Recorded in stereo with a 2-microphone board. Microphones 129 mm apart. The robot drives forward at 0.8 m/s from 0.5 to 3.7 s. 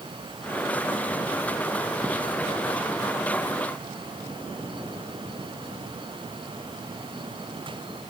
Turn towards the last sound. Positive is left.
No sound to turn to.